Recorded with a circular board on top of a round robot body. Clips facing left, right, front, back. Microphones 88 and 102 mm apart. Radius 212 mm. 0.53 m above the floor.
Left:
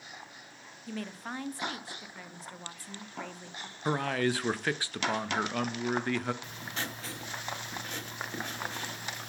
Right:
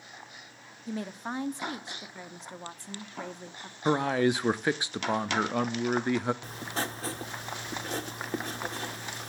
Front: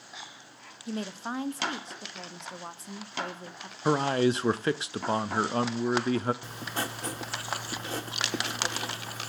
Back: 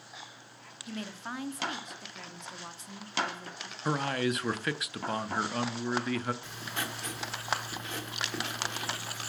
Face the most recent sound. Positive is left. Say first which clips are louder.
# right 4 dB, front 3 dB
turn(degrees=-45)